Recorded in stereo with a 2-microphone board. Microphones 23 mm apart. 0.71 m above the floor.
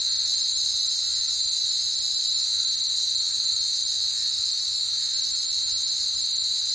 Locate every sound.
0.0 s an insect: 25° right (ahead or behind), 6.5 m